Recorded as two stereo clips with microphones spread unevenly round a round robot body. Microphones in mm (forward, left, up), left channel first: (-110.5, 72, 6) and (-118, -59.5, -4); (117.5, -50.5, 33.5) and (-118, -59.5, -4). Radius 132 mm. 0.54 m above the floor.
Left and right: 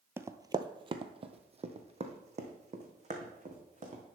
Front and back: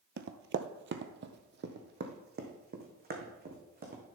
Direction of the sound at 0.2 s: 160° right.